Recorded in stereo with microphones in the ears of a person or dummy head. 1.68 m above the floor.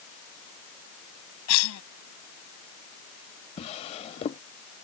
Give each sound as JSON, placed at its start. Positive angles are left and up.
{"t": 1.5, "sound": "a cough", "side_deg": 75}
{"t": 3.6, "sound": "a drawer", "side_deg": 30}